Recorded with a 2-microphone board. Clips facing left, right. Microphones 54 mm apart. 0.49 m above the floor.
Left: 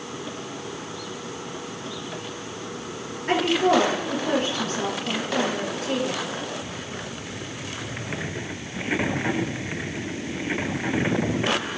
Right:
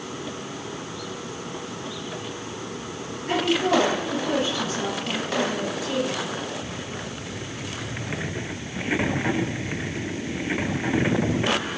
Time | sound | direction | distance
3.3 | a woman speaking | 55° left (ahead or behind) | 8 m